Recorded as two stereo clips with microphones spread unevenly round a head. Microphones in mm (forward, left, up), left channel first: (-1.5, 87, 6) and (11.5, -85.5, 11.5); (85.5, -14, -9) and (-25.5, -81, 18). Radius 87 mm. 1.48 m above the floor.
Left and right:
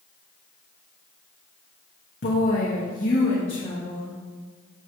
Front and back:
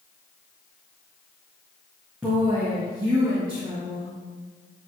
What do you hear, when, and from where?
2.2 s a woman speaking: 130° left, 1.4 m; by 4.2 s 160° left, 2 m